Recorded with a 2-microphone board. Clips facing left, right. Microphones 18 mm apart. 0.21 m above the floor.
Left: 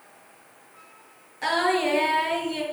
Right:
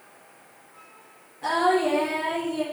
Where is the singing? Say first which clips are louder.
Right 1 dB; 65° left (ahead or behind), 4 m.